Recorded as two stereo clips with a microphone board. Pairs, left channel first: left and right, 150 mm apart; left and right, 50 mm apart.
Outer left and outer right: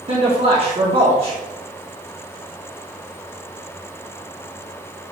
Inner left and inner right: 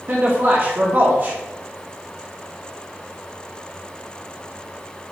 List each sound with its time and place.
0.1 s a man speaking: 45° right (ahead or behind), 1.4 m